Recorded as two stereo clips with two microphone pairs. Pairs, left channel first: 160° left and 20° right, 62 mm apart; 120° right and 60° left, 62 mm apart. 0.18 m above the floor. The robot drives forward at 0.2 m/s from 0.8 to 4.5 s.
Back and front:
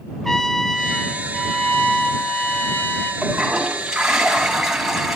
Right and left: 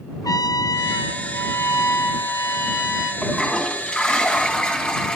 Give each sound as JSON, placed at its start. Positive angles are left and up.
{"t": 0.2, "sound": "a trumpet", "azimuth_deg": -120, "distance_m": 0.7}
{"t": 3.2, "sound": "a toilet flushing", "azimuth_deg": -70, "distance_m": 1.6}